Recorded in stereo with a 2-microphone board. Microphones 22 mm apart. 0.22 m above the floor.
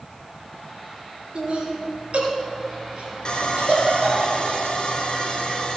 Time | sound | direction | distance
1.4 | laughter | 50° right (ahead or behind) | 3 m
3.2 | sawing | 40° left (ahead or behind) | 1.5 m